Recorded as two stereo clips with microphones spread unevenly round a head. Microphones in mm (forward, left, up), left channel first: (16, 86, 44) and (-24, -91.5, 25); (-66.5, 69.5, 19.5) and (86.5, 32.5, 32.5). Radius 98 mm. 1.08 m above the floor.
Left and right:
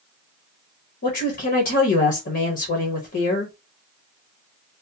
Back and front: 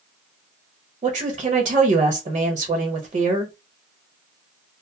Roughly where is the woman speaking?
Ahead left.